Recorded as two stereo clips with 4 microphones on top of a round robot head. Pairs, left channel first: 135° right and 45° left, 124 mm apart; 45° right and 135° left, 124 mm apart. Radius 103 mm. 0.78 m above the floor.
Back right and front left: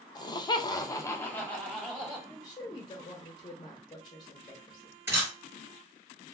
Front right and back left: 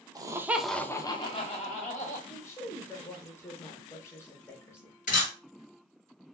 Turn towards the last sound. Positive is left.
turn(degrees=-25)